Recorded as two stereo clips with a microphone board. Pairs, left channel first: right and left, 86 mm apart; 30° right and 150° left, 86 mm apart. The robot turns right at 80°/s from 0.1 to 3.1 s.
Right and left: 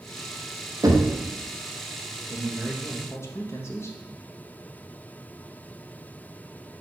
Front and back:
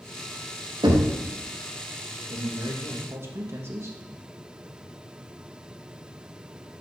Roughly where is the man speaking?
Behind left.